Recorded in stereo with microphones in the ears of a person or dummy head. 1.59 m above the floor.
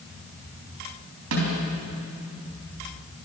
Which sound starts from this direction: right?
A snare drum, at 1.3 s.